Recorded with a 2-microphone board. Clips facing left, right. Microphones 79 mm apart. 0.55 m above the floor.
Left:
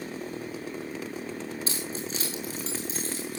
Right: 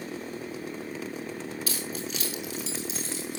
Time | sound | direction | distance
1.7 | keys jangling | 30° left (ahead or behind) | 5 m